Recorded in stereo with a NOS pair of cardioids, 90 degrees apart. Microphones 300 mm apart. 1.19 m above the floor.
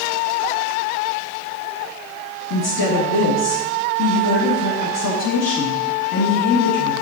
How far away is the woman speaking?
About 1.7 m.